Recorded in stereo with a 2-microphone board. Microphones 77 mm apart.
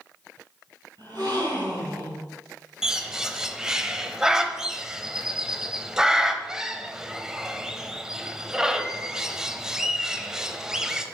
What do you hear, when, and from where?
1.0 s a gasp: 70° right (ahead or behind), 4.5 m
2.8 s a bird: 10° right (ahead or behind), 0.7 m